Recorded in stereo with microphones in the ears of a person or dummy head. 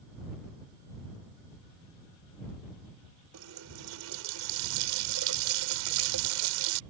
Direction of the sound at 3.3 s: 75° right (ahead or behind).